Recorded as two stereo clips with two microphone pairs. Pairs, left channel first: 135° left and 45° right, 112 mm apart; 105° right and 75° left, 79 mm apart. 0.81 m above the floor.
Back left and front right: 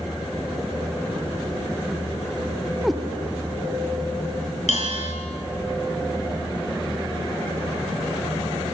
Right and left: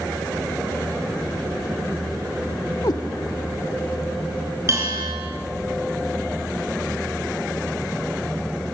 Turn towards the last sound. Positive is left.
turn(degrees=125)